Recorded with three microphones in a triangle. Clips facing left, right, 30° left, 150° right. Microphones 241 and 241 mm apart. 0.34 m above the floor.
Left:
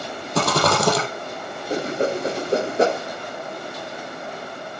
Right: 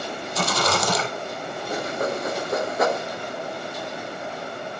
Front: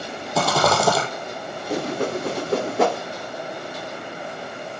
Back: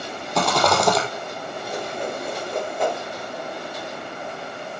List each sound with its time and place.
0.3 s a rattle: 115° left, 3 m
1.7 s a whoosh: 35° left, 0.7 m